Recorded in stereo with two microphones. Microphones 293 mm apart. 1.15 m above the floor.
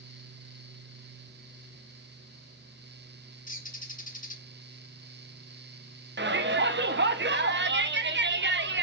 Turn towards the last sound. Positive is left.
turn(degrees=-40)  # may be behind; listen again after turning